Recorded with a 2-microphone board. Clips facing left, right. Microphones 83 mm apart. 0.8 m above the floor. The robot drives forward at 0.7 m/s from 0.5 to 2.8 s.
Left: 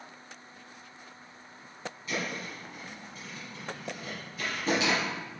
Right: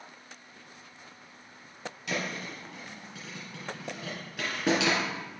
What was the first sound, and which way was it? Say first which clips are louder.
A thud: right 1 dB; 75° right (ahead or behind).